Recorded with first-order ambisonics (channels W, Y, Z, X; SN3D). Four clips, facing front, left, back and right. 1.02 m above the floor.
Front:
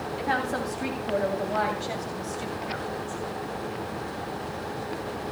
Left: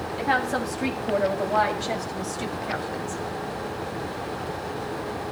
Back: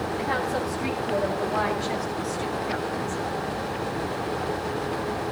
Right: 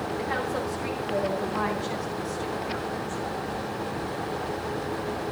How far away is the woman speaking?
About 7 m.